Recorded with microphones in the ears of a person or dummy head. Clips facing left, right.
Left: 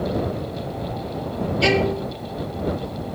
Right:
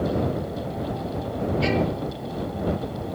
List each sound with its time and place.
1.6 s a violin: 70° left (ahead or behind)